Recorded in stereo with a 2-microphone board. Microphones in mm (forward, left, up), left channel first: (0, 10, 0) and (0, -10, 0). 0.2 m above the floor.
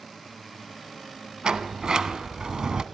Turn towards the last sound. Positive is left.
turn(degrees=-45)  # may be behind; listen again after turning